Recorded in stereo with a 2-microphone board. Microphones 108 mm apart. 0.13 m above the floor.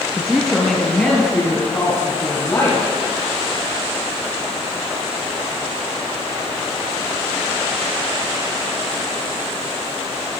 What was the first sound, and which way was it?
A woman speaking, 5° left (ahead or behind).